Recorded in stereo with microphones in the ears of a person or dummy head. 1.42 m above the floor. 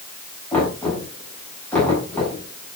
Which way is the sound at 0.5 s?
15° left (ahead or behind).